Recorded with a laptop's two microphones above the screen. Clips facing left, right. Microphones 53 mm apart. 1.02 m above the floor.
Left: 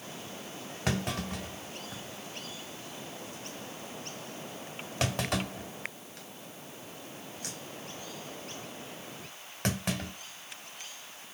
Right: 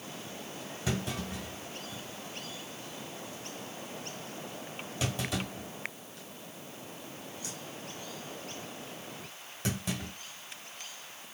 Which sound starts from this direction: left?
A clunk, at 0.9 s.